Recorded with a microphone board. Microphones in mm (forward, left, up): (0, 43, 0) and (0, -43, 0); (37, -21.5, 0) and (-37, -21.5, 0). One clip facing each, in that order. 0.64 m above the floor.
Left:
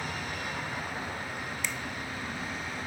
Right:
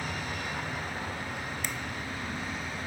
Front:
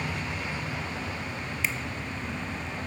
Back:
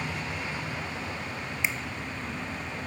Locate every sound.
1.6 s a finger snap: 115° right, 0.5 m